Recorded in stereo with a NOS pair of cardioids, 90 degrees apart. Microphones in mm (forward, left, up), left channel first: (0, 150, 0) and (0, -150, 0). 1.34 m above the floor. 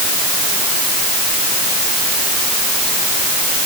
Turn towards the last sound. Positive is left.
No sound to turn to.